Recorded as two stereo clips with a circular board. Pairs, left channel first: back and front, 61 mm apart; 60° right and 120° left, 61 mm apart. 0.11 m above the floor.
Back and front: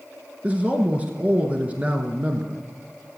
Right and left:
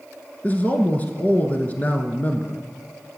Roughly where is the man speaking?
Ahead right.